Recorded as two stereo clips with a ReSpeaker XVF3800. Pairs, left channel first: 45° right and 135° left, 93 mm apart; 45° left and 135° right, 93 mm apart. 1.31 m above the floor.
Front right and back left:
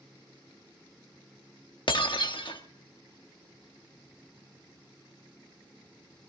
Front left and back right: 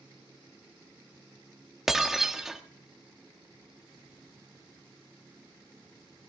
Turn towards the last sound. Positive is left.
turn(degrees=-50)